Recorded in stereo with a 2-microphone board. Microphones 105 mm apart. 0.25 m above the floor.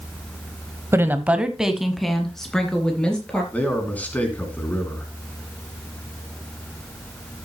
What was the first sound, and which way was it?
A woman speaking, 20° right (ahead or behind).